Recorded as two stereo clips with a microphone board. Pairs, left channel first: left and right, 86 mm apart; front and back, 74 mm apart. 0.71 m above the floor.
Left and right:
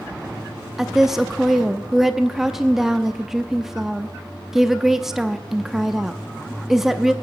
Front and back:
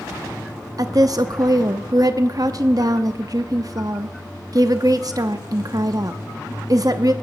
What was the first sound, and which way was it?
A woman speaking, 175° right.